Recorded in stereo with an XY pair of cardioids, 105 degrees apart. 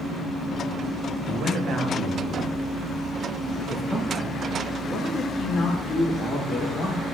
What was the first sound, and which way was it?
A man speaking, 60° right.